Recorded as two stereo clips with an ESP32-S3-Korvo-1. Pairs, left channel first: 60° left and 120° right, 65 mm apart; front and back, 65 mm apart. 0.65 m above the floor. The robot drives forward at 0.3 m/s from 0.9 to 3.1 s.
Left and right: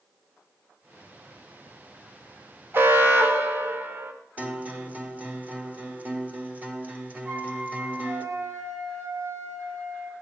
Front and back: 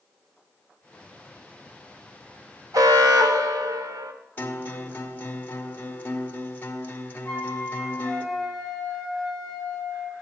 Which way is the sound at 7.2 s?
80° right.